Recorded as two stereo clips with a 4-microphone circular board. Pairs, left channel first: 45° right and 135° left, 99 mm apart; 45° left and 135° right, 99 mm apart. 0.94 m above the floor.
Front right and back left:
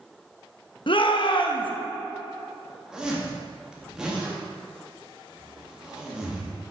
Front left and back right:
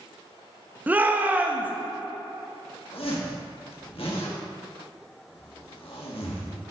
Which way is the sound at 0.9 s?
65° right.